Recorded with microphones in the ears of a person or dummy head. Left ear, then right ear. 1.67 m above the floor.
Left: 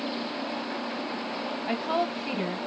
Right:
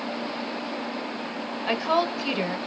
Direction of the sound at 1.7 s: 50° right (ahead or behind).